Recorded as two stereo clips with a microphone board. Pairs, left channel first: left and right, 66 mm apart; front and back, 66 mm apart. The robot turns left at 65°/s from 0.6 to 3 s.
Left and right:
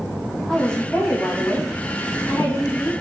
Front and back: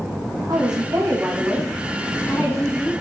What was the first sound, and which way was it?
A woman speaking, 175° left.